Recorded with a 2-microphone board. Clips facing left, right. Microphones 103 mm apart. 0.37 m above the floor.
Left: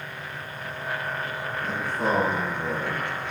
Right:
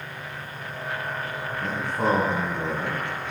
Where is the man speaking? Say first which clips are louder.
Right 2 dB; 70° right (ahead or behind), 3 m.